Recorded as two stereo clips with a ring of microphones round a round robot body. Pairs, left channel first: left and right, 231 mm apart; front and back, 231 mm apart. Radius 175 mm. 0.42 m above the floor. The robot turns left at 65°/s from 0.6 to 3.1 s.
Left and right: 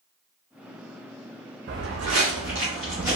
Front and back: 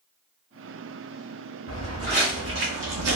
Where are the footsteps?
55° right, 1.5 m; by 3.2 s 175° right, 0.9 m.